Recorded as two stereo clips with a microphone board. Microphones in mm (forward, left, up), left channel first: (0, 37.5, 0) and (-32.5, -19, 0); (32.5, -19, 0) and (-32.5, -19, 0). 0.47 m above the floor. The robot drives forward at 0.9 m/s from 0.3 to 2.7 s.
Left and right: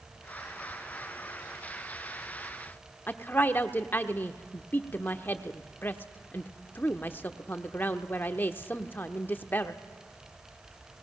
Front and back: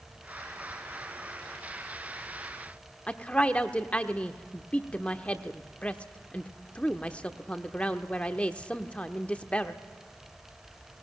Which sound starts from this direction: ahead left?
A woman speaking, at 3.1 s.